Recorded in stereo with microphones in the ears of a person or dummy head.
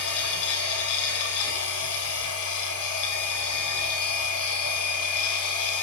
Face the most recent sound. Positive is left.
turn(degrees=70)  # may be behind; listen again after turning